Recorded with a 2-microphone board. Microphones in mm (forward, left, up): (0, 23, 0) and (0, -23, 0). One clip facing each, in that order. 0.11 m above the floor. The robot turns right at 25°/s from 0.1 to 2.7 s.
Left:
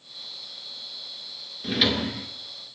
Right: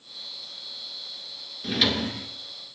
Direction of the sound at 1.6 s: 5° left (ahead or behind).